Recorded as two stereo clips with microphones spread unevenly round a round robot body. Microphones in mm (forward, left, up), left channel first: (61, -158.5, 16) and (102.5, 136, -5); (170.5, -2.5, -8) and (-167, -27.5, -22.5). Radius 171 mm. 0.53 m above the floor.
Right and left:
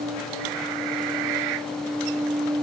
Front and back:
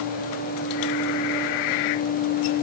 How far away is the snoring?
I don't hear snoring.